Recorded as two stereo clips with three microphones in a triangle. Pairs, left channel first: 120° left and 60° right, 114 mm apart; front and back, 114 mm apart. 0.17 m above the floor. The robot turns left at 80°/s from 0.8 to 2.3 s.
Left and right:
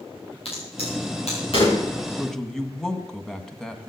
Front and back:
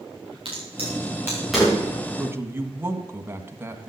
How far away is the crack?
About 8.5 m.